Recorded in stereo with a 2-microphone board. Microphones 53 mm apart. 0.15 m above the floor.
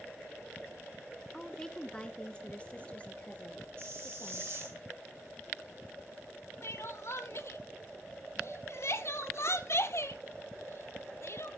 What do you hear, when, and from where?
1.3 s a woman speaking: 5° left (ahead or behind), 1.2 m; by 4.5 s 30° left (ahead or behind), 3 m
3.8 s a hiss: 50° right (ahead or behind), 6 m
6.6 s crying: 55° left (ahead or behind), 0.9 m